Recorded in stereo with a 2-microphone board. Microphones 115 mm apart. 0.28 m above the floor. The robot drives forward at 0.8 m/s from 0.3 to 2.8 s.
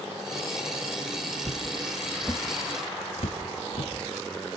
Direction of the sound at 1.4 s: 40° right (ahead or behind).